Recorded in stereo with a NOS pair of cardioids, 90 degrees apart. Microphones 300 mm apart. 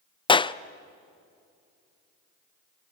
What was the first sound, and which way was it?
A clap, 15° left.